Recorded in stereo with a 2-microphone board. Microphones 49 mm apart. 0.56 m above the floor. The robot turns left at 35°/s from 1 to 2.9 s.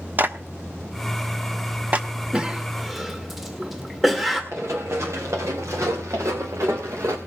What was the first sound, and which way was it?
A clap, 40° right (ahead or behind).